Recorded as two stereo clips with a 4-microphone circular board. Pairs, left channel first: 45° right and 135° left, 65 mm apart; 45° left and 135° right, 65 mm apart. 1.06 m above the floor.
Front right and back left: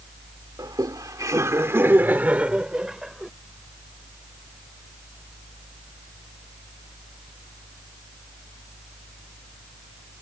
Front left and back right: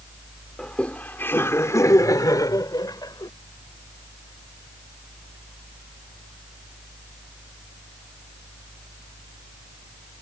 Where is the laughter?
125° left; by 3.3 s 50° left.